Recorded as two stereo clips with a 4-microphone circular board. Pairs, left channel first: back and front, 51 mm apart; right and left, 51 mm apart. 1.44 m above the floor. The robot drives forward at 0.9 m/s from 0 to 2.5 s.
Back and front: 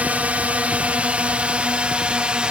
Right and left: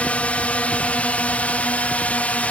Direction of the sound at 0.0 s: 45° right.